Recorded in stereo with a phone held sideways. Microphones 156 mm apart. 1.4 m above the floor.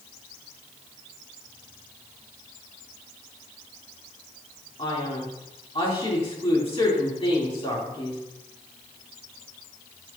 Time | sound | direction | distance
4.8 | a man speaking | 40° left (ahead or behind) | 3.5 m